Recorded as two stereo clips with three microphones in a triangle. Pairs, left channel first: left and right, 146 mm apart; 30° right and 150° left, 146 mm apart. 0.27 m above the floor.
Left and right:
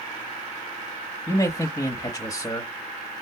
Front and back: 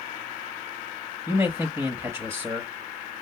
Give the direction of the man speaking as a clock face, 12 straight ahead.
9 o'clock.